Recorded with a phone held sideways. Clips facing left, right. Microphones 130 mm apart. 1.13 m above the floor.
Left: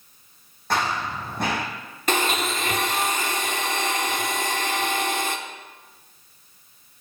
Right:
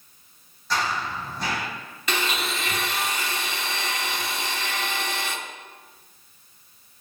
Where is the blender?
45° left (ahead or behind), 1.0 m.